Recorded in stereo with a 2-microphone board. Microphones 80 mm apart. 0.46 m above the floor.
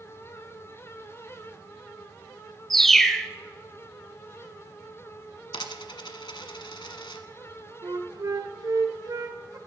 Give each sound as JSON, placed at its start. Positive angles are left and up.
{"t": 2.7, "sound": "a bird", "side_deg": 5, "distance_m": 0.7}
{"t": 5.5, "sound": "a dropped coin", "side_deg": 85, "distance_m": 1.2}
{"t": 7.8, "sound": "a flute", "side_deg": -50, "distance_m": 1.4}